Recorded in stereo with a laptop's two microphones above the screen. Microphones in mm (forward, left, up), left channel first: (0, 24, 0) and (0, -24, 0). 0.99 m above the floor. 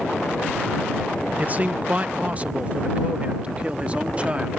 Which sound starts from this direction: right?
A man speaking, at 1.4 s.